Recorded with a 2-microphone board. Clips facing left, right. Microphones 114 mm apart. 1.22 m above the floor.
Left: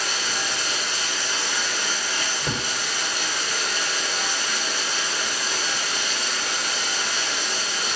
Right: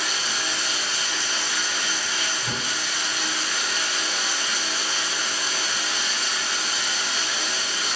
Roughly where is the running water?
Left.